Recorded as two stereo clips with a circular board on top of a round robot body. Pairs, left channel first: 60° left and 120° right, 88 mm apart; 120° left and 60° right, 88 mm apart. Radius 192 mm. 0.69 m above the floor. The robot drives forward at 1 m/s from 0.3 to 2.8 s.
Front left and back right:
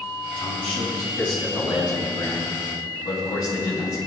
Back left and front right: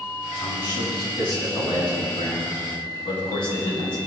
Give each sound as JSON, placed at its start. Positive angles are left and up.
{"t": 0.3, "sound": "a man speaking", "azimuth_deg": 85, "distance_m": 7.0}